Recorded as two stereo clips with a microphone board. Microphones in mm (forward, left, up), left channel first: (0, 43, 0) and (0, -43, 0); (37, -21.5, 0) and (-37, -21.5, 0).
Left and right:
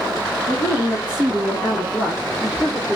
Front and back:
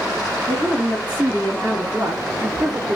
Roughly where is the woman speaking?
Right.